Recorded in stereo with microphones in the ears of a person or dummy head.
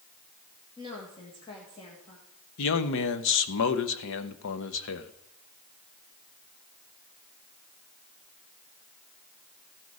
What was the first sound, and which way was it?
A woman speaking, 30° left (ahead or behind).